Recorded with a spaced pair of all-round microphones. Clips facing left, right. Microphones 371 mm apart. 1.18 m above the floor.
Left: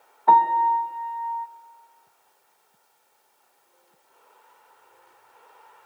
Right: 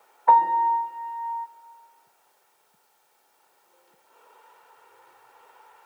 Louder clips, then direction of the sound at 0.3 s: Left 1 dB; 50° left (ahead or behind).